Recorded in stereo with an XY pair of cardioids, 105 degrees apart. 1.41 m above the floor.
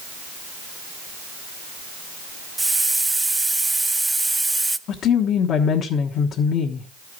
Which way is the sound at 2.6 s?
15° right.